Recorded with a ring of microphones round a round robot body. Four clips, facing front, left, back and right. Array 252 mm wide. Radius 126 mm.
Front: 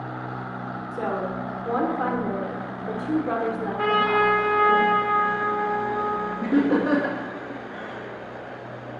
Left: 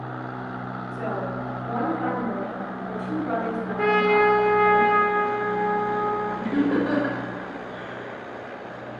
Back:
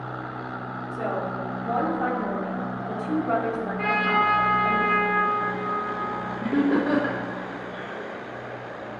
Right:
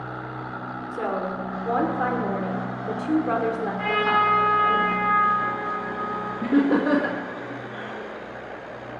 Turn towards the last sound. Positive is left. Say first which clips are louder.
# right 4 dB, front 1 dB
turn(degrees=-50)